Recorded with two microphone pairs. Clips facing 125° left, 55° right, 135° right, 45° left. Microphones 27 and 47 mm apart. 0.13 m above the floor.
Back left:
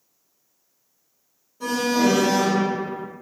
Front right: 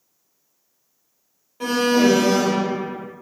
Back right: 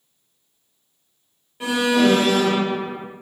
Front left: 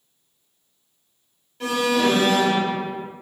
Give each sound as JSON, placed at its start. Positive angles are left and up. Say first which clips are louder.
{"t": 1.6, "sound": "an alarm", "louder": "front right 3 dB, back right 2 dB", "azimuth_deg": -60, "distance_m": 3.0}